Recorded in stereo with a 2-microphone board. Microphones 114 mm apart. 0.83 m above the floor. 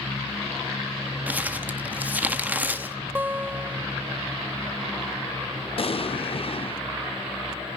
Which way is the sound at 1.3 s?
15° right (ahead or behind).